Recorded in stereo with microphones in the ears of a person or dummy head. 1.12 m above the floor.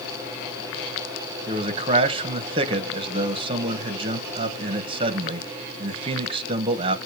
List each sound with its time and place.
1.5 s a man speaking: 35° right (ahead or behind), 1.1 m